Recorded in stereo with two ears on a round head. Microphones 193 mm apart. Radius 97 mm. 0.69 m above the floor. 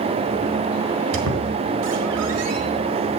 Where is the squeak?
65° right (ahead or behind), 4.5 m.